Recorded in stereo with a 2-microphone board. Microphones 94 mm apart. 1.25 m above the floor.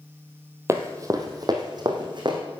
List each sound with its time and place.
0.7 s running footsteps: 30° right (ahead or behind), 1.7 m; by 2.4 s 55° right (ahead or behind), 3.5 m